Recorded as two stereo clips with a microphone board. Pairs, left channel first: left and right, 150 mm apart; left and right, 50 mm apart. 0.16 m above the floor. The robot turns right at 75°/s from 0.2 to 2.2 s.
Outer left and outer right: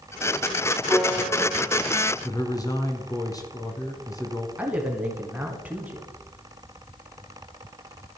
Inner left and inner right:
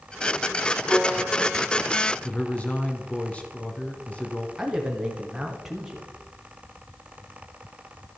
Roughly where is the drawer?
I don't hear a drawer.